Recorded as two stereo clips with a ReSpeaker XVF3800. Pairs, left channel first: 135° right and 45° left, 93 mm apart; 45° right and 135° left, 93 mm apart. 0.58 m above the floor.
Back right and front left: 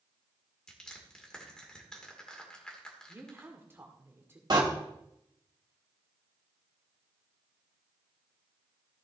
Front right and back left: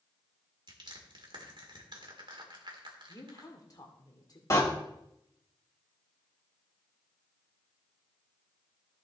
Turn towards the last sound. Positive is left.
turn(degrees=10)